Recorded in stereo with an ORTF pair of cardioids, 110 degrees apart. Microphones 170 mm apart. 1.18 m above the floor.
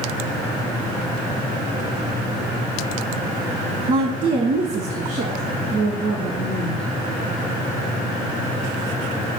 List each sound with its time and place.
3.9 s a woman speaking: 40° right, 0.8 m; by 6.9 s 70° right, 2.5 m